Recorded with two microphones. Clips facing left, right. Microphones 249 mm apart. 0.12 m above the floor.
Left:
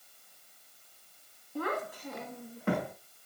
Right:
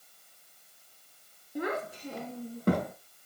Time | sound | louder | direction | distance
1.6 | a child speaking | right 2 dB | 15° right (ahead or behind) | 1.0 m